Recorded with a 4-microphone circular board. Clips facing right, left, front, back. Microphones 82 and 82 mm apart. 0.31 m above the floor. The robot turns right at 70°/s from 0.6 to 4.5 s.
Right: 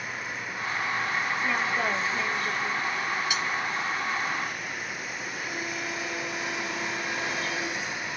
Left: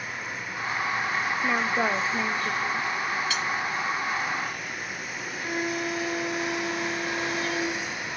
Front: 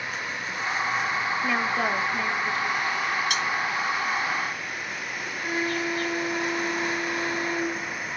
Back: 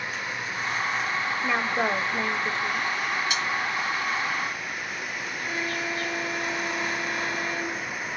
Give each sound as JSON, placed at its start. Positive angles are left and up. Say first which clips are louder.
{"t": 1.4, "sound": "a woman speaking", "louder": "left 4 dB, back 1 dB", "azimuth_deg": 100, "distance_m": 1.1}
{"t": 3.3, "sound": "cutlery clinking", "louder": "even, front 1 dB", "azimuth_deg": -15, "distance_m": 1.8}
{"t": 5.4, "sound": "a violin", "louder": "left 7 dB, front 4 dB", "azimuth_deg": 65, "distance_m": 1.1}